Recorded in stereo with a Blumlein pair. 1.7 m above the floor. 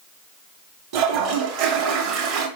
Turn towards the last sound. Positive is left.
turn(degrees=-45)